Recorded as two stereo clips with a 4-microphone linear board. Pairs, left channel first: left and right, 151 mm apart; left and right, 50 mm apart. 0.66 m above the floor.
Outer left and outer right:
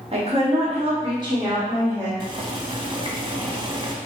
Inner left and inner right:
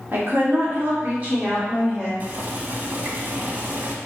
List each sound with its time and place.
0.1 s a woman speaking: 40° right (ahead or behind), 1.2 m; by 2.1 s 15° right (ahead or behind), 2.5 m
2.2 s boiling: 35° right (ahead or behind), 0.6 m